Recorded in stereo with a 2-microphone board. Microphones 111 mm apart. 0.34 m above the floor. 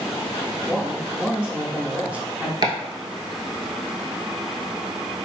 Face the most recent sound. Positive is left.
turn(degrees=-40)  # may be behind; listen again after turning